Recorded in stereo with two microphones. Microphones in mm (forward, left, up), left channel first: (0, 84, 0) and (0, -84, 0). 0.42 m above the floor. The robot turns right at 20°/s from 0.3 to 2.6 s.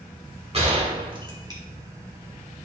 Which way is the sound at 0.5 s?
40° right (ahead or behind).